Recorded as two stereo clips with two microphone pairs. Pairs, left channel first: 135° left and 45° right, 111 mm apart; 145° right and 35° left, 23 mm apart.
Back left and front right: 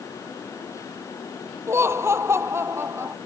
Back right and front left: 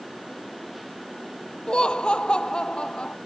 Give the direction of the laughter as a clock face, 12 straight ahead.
4 o'clock.